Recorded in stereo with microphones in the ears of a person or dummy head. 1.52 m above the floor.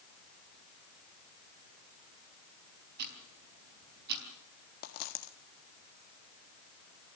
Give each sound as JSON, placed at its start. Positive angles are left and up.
{"t": 3.0, "sound": "ticking", "side_deg": -55, "distance_m": 4.0}
{"t": 4.8, "sound": "a dropped coin", "side_deg": 45, "distance_m": 1.4}